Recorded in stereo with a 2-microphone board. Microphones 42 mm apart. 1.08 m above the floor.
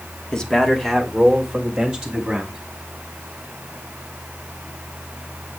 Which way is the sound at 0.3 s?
20° left (ahead or behind).